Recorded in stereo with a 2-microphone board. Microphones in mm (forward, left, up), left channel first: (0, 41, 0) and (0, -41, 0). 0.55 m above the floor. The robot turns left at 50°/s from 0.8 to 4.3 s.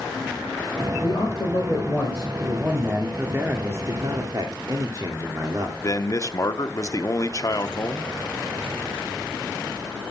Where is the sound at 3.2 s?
30° right, 1.6 m; by 5.7 s 90° right, 1.6 m.